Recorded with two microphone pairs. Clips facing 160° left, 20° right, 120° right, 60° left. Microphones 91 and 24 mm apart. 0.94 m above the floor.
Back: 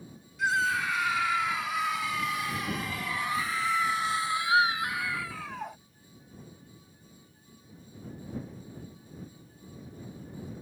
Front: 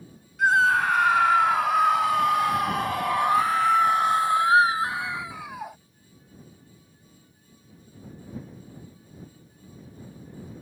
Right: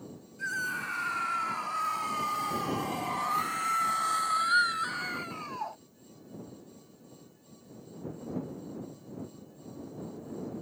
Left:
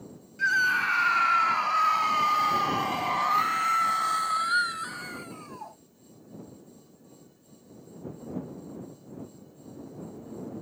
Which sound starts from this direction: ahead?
A scream, at 0.4 s.